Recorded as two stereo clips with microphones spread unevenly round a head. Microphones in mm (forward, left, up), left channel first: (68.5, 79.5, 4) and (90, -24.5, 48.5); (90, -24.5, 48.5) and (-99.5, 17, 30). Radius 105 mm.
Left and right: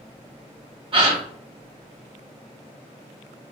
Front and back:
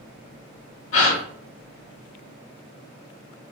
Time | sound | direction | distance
0.9 | a gasp | 35° right | 1.9 m